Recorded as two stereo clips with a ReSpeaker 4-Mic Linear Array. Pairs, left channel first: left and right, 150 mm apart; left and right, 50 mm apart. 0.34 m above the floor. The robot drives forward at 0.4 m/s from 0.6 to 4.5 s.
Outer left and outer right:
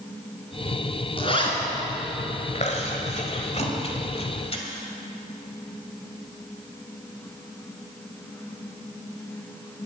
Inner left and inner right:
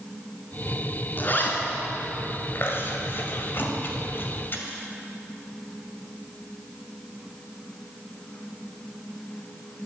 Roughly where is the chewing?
Left.